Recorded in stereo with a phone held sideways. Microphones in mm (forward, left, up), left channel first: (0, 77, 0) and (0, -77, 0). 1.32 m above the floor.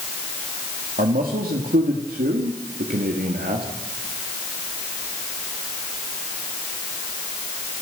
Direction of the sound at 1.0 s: 70° right (ahead or behind).